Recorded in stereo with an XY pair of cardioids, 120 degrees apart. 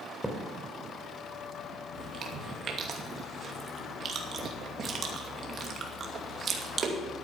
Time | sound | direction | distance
0.2 | a thud | 5° right | 2.5 m
1.9 | chewing | 45° right | 2.5 m